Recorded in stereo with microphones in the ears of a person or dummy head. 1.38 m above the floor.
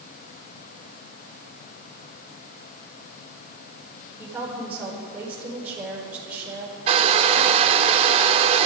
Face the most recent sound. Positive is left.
turn(degrees=-35)  # may be behind; listen again after turning